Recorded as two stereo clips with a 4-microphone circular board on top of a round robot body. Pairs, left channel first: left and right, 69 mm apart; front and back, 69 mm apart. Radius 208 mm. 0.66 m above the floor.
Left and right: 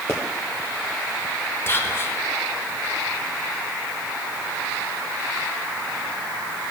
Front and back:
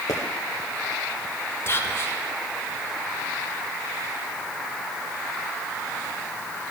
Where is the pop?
35° left, 0.8 m.